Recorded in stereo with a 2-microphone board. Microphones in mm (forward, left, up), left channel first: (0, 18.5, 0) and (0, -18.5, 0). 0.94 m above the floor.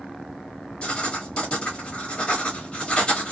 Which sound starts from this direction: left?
Writing, at 0.8 s.